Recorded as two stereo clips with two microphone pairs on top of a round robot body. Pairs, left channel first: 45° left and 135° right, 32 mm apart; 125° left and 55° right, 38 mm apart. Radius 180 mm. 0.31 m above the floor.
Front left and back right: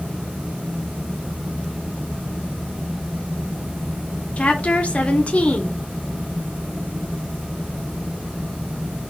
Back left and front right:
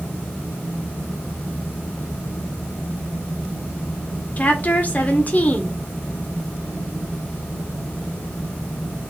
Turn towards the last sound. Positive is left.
turn(degrees=90)